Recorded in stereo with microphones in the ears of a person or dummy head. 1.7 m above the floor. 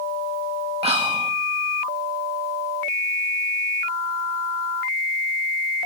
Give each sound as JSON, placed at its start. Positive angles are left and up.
{"t": 0.8, "sound": "whispering", "side_deg": -40, "distance_m": 2.5}